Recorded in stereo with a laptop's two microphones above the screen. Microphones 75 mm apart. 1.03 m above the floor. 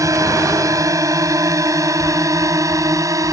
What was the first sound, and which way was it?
A drone, 45° right (ahead or behind).